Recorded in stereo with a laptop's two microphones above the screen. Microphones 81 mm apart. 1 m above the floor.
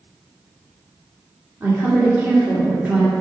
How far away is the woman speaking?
About 2 m.